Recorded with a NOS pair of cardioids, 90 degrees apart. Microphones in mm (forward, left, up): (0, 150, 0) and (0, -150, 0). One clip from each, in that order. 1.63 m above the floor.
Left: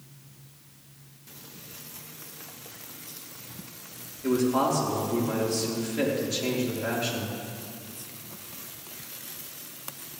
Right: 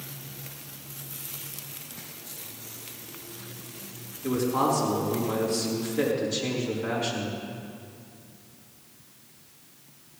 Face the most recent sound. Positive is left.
turn(degrees=40)